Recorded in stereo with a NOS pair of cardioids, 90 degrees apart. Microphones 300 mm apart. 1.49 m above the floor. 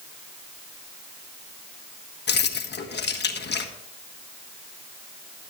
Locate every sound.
2.3 s keys jangling: 35° left, 1.5 m